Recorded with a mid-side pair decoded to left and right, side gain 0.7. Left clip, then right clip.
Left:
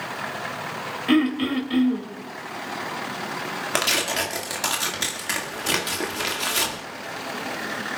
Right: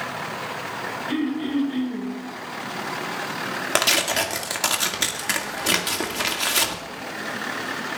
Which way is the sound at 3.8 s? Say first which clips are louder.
Right 2 dB; 10° right.